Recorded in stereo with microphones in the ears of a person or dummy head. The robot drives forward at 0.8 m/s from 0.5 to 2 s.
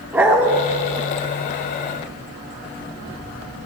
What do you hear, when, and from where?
0.1 s a dog barking: 15° right (ahead or behind), 1.2 m